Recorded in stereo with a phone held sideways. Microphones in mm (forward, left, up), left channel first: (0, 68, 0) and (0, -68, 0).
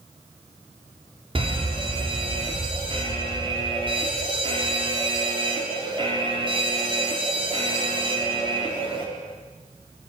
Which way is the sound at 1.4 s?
40° right (ahead or behind).